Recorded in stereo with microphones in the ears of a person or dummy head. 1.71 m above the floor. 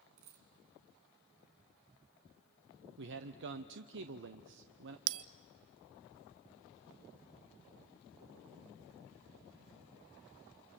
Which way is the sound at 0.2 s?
35° right (ahead or behind).